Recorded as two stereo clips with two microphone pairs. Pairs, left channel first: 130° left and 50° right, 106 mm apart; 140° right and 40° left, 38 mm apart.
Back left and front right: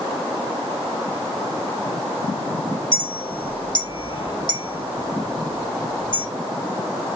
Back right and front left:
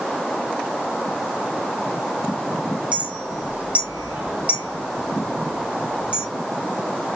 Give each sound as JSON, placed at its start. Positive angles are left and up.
{"t": 2.9, "sound": "a clink", "azimuth_deg": 90, "distance_m": 1.3}